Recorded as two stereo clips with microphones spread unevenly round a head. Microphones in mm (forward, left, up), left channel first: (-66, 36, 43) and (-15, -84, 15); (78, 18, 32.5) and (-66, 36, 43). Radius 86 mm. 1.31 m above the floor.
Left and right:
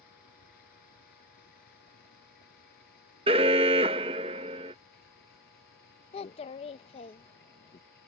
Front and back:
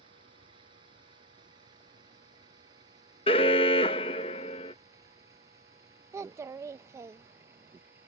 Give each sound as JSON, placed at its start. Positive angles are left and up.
{"t": 0.0, "sound": "a vehicle", "azimuth_deg": 115}
{"t": 3.3, "sound": "an alarm", "azimuth_deg": -30}
{"t": 6.1, "sound": "a child speaking", "azimuth_deg": 110}